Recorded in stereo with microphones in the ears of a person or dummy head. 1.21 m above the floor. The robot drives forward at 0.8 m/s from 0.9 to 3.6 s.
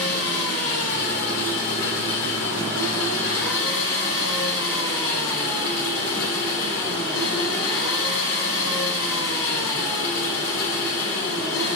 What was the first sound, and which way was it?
An engine running, 70° left (ahead or behind).